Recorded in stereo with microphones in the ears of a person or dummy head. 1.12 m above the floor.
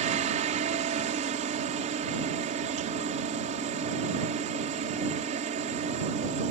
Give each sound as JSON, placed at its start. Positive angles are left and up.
{"t": 0.0, "sound": "a helicopter", "side_deg": -35}